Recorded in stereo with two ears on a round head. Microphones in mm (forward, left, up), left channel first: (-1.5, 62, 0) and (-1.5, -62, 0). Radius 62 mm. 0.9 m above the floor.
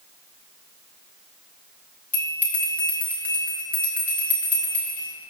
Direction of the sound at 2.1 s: 10° left (ahead or behind).